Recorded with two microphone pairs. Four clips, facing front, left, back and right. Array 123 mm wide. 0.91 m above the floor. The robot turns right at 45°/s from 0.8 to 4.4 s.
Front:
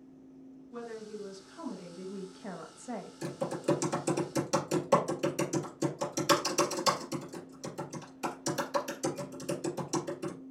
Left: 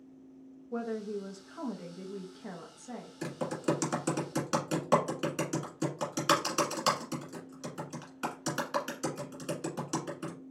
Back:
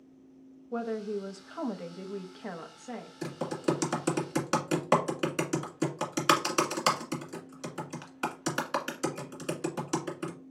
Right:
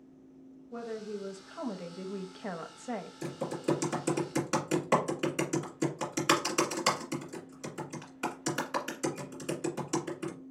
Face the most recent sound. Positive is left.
turn(degrees=175)